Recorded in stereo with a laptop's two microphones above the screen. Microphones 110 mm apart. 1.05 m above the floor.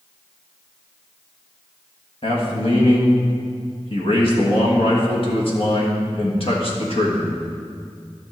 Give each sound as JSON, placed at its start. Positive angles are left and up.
{"t": 2.2, "sound": "a man speaking", "side_deg": 55, "distance_m": 1.6}